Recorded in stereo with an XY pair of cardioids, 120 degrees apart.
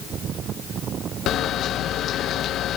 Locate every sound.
1.3 s a camera shutter: 60° left, 0.6 m